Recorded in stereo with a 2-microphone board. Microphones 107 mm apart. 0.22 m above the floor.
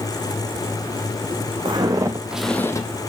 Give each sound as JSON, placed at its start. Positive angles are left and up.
{"t": 1.6, "sound": "footsteps", "side_deg": -45, "distance_m": 0.8}